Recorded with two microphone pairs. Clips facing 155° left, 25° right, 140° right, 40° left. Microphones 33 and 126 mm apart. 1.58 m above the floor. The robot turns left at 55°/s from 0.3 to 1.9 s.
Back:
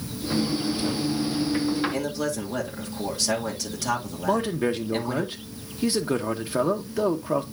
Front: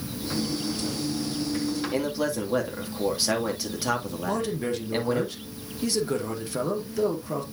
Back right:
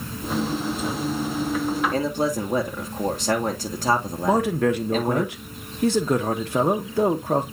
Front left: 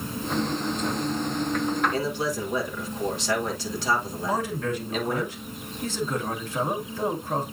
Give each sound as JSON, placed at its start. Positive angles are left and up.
{"t": 1.9, "sound": "a man speaking", "azimuth_deg": -100, "distance_m": 2.5}
{"t": 4.2, "sound": "a man speaking", "azimuth_deg": -145, "distance_m": 1.6}